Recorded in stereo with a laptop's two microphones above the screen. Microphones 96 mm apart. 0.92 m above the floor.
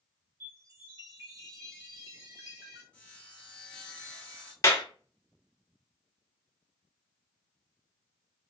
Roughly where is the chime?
Right.